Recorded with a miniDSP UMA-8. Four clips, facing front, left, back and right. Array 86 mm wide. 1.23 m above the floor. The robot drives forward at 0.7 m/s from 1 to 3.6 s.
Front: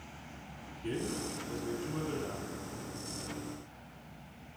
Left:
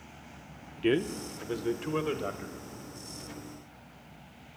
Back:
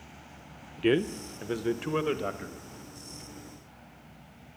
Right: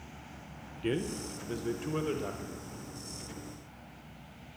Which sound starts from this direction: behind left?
A man speaking, at 0.8 s.